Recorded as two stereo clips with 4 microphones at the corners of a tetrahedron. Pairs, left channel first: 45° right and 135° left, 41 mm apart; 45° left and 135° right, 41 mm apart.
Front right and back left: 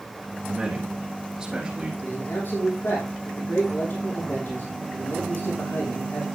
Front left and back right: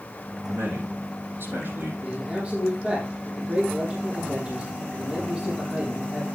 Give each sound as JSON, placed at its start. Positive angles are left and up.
{"t": 0.5, "sound": "a man speaking", "azimuth_deg": -145, "distance_m": 7.0}
{"t": 2.0, "sound": "a man speaking", "azimuth_deg": -70, "distance_m": 6.0}